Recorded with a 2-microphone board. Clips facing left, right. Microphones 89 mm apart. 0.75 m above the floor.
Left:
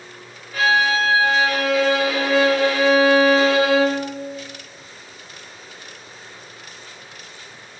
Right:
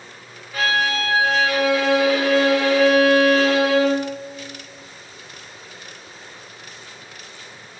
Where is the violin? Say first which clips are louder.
Left 3 dB; centre (ahead or behind), 1.0 m.